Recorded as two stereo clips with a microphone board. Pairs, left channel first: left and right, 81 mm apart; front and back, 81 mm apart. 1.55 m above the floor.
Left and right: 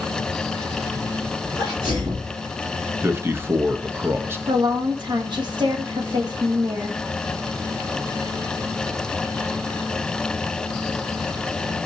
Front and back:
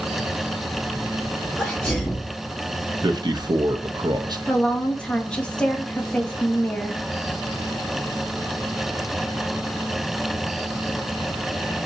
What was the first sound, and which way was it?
A sneeze, 75° right.